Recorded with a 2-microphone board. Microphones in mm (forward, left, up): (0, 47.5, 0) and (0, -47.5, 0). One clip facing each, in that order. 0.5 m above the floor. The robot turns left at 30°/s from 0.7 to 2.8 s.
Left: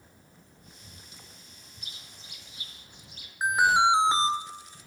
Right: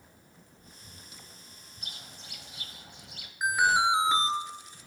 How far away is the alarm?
About 1.5 m.